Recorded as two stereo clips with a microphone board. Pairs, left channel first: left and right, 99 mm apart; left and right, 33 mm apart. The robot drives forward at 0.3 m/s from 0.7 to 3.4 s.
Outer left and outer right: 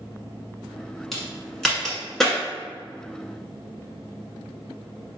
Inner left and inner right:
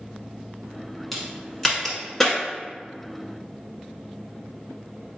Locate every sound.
1.1 s a crack: 5° left (ahead or behind), 1.0 m